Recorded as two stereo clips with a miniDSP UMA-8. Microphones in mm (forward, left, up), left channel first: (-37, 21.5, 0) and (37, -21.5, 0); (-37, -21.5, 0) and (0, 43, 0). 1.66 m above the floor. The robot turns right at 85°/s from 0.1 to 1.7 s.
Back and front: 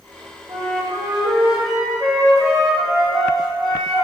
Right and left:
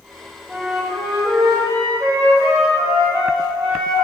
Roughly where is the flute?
Ahead right.